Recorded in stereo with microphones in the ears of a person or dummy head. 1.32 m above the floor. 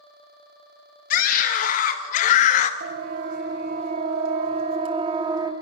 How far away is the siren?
About 3.5 m.